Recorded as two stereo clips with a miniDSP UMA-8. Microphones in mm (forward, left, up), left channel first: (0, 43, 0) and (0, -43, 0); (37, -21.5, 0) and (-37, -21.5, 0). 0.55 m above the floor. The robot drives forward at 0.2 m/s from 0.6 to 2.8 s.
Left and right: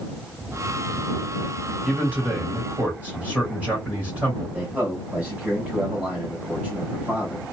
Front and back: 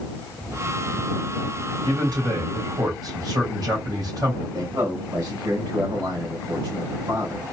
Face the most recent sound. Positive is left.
turn(degrees=-165)